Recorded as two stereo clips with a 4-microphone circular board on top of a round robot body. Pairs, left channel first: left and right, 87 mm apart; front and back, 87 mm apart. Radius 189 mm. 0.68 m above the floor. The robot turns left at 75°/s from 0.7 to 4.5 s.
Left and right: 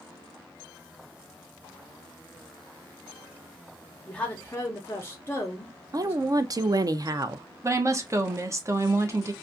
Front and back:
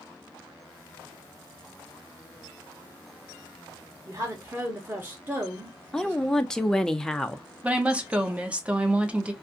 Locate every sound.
4.1 s a woman speaking: 165° left, 0.9 m; by 6.2 s 135° left, 0.9 m
5.9 s a woman speaking: 80° right, 0.6 m
7.6 s a woman speaking: 115° right, 0.8 m